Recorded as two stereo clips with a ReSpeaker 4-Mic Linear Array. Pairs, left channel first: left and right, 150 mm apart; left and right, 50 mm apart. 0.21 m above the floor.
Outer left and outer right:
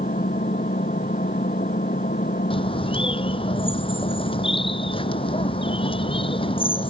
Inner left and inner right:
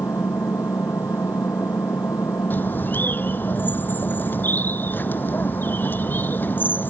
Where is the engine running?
75° left (ahead or behind).